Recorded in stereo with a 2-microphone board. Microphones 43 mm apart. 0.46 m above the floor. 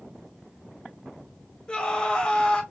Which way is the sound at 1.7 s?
20° left (ahead or behind).